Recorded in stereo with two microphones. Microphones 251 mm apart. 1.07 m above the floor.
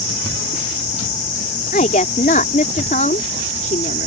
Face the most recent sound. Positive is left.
turn(degrees=35)  # may be behind; listen again after turning